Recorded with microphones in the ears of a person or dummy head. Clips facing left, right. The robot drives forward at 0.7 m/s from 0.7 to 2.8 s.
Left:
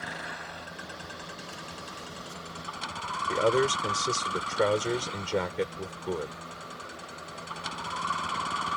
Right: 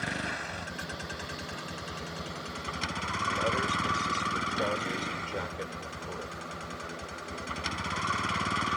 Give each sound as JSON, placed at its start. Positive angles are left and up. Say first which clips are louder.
{"t": 0.0, "sound": "a vehicle", "louder": "right 4 dB", "side_deg": -40}
{"t": 3.3, "sound": "a man speaking", "louder": "left 8 dB", "side_deg": 60}